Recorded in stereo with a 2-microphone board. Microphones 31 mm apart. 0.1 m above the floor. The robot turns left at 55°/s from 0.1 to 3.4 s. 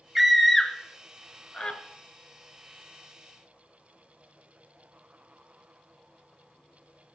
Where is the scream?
5° right (ahead or behind), 1.3 m; by 1.8 s 30° left (ahead or behind), 1.3 m.